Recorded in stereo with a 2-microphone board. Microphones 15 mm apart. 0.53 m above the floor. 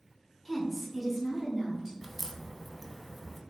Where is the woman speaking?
Centre (ahead or behind), 0.7 m; by 1.9 s 10° right (ahead or behind), 1.0 m.